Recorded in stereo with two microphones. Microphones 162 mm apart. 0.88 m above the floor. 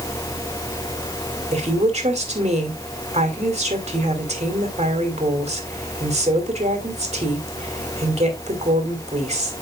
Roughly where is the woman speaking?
Right.